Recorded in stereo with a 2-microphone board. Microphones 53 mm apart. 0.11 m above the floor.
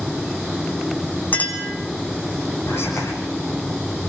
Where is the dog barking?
No dog barking in this recording.